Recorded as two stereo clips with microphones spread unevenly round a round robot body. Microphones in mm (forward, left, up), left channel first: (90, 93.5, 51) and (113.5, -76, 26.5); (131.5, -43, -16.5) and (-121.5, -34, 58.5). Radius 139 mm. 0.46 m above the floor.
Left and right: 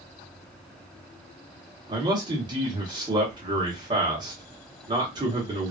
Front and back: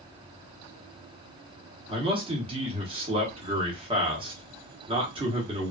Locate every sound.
1.9 s a man speaking: 100° right, 1.1 m